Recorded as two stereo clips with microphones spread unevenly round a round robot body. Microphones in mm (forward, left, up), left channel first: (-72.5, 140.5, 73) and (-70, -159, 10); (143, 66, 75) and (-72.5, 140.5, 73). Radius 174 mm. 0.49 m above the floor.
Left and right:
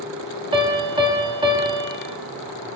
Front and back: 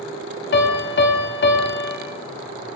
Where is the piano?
30° right, 0.9 m.